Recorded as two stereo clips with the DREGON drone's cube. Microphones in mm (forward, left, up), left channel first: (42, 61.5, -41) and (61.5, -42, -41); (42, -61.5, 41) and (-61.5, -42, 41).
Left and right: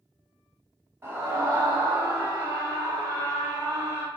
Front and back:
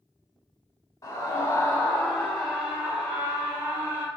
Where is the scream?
35° right, 1.3 m; by 4.1 s 130° right, 1.7 m.